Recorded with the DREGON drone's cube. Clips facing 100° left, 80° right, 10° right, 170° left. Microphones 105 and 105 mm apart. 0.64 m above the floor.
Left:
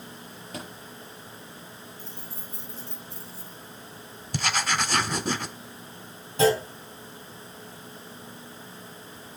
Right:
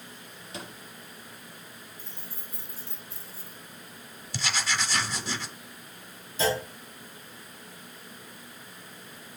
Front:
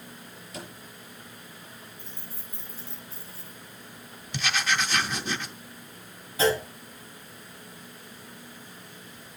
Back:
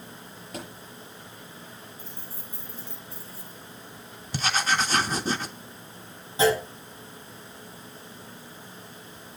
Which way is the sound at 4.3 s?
125° left.